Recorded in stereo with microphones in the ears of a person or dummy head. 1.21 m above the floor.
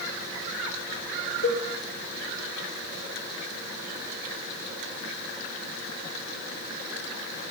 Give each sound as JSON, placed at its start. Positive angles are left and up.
{"t": 1.4, "sound": "a cowbell", "side_deg": 65, "distance_m": 7.5}